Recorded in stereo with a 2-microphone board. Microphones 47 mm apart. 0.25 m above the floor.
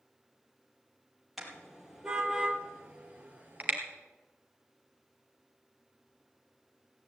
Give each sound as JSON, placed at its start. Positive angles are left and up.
{"t": 1.4, "sound": "a car horn", "side_deg": -5, "distance_m": 4.0}